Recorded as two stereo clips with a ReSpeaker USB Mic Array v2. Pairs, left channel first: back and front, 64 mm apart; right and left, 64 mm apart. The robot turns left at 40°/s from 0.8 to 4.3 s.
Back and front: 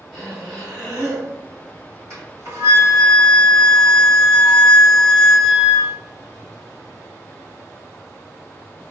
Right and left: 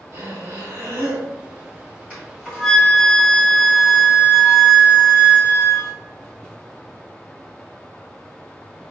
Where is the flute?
25° left, 1.7 m; by 5.9 s 65° right, 1.7 m.